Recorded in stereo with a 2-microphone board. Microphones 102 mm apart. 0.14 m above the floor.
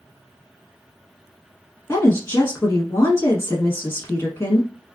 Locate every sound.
1.9 s a woman speaking: 25° left (ahead or behind), 1.2 m